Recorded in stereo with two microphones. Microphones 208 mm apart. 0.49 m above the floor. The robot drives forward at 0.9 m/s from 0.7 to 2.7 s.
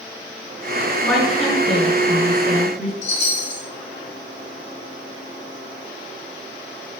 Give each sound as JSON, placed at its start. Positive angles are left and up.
{"t": 1.1, "sound": "a woman speaking", "side_deg": 0, "distance_m": 3.5}
{"t": 3.0, "sound": "a chime", "side_deg": 25, "distance_m": 3.0}